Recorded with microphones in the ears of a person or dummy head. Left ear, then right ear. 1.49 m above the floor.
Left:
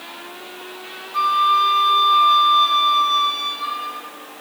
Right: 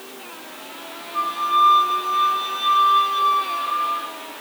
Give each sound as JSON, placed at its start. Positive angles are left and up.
{"t": 1.1, "sound": "a flute", "side_deg": 50, "distance_m": 3.0}